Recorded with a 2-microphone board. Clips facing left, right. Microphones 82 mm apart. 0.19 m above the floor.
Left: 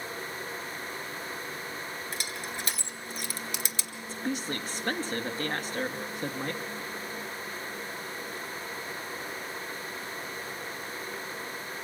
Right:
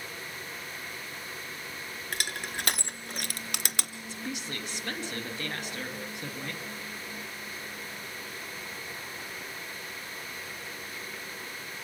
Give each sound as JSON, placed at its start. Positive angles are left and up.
{"t": 2.1, "sound": "crushing", "side_deg": -70, "distance_m": 1.1}
{"t": 4.1, "sound": "a woman speaking", "side_deg": 40, "distance_m": 2.5}